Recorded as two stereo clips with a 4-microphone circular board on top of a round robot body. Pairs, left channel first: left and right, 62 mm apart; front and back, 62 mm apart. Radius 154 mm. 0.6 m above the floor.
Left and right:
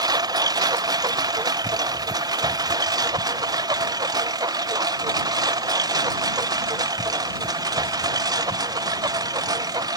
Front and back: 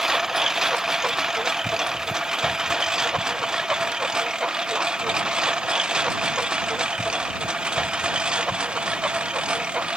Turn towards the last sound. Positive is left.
turn(degrees=-105)